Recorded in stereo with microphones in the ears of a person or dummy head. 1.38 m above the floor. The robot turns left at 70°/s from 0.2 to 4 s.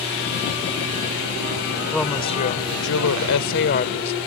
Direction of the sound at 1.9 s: Straight behind.